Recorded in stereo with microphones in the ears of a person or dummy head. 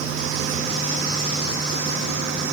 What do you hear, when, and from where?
Only background noise.